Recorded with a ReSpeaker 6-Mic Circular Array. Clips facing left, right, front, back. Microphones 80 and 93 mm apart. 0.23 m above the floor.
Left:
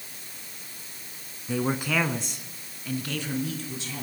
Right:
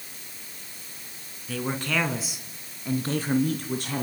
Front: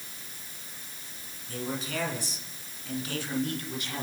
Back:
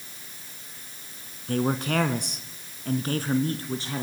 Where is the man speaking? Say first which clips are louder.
Left 2 dB, back 9 dB; 160° left, 3 m; by 4.0 s 120° right, 4 m.